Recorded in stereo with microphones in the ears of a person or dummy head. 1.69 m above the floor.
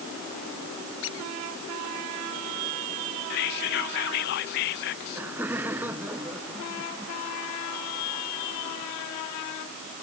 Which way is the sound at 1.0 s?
75° left (ahead or behind).